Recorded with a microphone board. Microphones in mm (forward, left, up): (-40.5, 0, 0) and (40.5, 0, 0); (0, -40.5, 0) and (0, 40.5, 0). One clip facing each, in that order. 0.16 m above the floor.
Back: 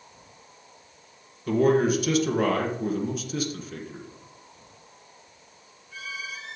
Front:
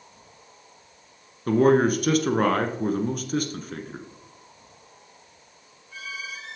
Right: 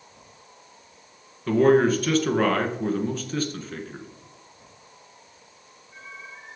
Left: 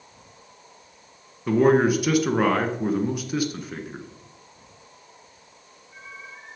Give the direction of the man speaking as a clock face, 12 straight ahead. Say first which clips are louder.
Front 2 dB, even; 11 o'clock.